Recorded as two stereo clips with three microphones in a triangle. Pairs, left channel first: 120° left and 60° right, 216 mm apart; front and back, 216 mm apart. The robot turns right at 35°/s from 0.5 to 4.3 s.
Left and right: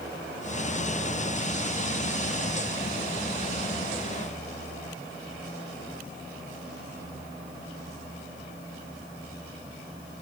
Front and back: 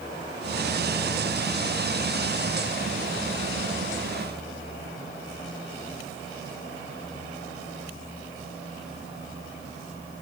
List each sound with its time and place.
Only background noise.